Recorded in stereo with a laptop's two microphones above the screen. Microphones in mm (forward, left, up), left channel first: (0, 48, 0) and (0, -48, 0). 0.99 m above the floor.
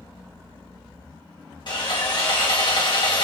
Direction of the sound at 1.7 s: 55° left (ahead or behind).